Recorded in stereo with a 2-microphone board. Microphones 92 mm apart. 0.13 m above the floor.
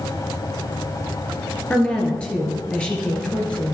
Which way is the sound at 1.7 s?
10° left (ahead or behind).